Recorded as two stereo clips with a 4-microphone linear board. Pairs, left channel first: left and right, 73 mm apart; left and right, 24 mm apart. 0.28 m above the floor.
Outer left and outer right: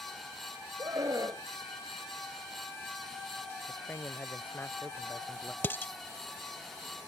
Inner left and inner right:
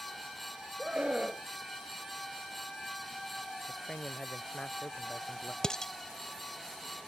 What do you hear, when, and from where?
0.8 s a scream: 50° right (ahead or behind)
3.7 s a man speaking: 30° left (ahead or behind)
5.6 s dishes clattering: 30° left (ahead or behind)